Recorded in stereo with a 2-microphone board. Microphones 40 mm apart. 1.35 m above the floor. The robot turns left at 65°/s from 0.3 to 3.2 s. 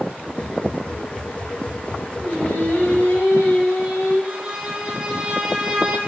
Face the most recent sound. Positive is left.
turn(degrees=-20)  # may be behind; listen again after turning